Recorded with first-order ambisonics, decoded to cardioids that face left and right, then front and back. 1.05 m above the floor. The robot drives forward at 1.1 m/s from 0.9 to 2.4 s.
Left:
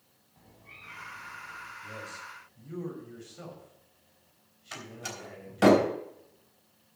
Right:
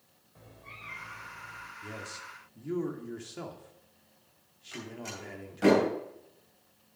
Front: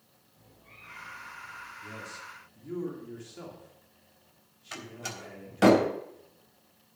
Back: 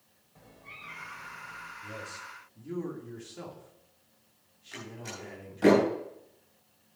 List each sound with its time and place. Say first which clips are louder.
0.3 s a cat meowing: right 3 dB, back 6 dB; 120° right, 2 m; by 1.7 s 135° right, 2.5 m
1.8 s a man speaking: left 1 dB, back 1 dB; 75° right, 2.5 m; by 5.7 s 90° right, 2.5 m
4.7 s a door slam: left 1 dB, front 3 dB; 35° left, 3.5 m